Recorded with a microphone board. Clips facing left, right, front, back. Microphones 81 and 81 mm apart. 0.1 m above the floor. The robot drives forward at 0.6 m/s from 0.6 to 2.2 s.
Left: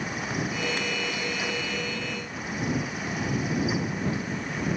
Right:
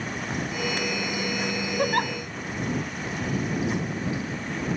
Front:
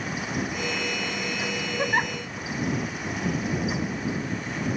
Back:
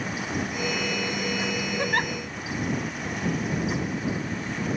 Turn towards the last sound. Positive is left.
turn(degrees=-85)